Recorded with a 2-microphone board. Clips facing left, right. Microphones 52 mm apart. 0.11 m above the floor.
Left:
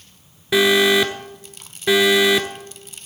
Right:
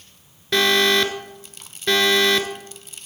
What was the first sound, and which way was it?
An alarm, 10° left (ahead or behind).